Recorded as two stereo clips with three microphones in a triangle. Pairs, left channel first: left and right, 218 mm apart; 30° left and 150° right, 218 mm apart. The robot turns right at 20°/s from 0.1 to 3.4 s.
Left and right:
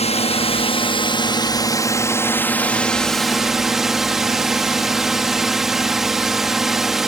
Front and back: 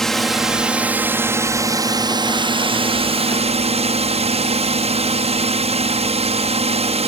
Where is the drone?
115° left; by 7.1 s 175° right.